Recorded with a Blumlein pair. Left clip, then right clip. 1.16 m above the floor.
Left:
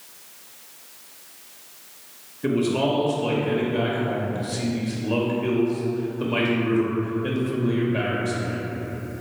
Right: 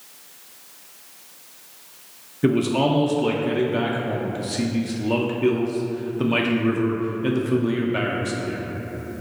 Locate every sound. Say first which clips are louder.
2.4 s a man speaking: right 2 dB; 40° right, 0.6 m